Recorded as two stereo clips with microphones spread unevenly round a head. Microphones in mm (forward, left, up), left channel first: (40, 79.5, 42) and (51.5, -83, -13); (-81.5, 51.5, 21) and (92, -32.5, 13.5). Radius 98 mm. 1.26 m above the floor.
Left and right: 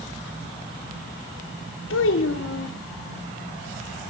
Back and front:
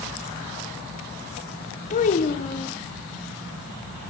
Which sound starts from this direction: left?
A child speaking, at 1.9 s.